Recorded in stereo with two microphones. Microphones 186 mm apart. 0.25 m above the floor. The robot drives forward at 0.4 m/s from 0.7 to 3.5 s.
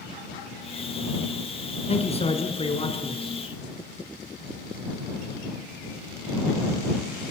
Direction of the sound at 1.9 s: 35° left (ahead or behind).